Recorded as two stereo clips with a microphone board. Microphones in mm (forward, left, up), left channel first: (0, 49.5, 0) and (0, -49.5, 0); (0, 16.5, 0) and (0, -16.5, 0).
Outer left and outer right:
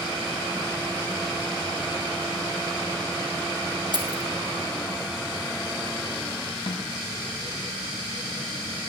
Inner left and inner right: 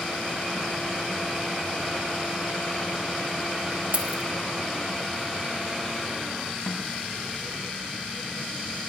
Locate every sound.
3.9 s keys jangling: 45° right (ahead or behind), 1.3 m
6.7 s a snare drum: 70° left (ahead or behind), 1.0 m